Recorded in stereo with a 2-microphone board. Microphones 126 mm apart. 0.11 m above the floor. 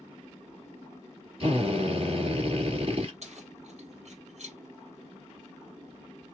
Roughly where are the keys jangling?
Right.